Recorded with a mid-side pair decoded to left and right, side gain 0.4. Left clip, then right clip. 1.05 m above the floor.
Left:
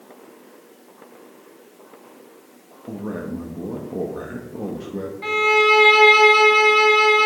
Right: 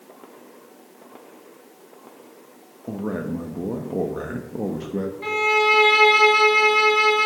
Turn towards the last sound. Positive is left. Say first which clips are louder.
# left 3 dB
turn(degrees=20)